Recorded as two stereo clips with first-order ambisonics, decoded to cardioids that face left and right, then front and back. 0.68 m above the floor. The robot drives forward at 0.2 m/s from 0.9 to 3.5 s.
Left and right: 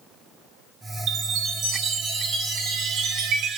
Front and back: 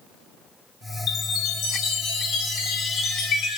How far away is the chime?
About 1.6 m.